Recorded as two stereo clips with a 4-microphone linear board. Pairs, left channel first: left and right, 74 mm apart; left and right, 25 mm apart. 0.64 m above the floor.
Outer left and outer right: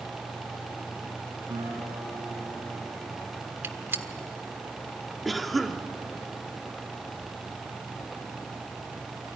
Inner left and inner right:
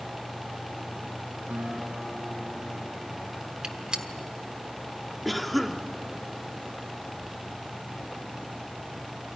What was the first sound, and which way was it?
A guitar, 75° right (ahead or behind).